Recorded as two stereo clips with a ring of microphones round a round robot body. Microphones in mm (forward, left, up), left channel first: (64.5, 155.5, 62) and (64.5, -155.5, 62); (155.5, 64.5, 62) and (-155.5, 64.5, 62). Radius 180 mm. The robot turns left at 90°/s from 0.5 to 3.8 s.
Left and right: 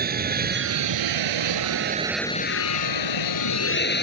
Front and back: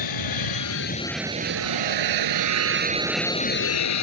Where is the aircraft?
30° right; by 4.0 s 35° left.